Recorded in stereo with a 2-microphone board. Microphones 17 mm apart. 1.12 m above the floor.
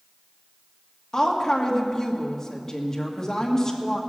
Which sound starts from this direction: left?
A woman speaking, at 1.1 s.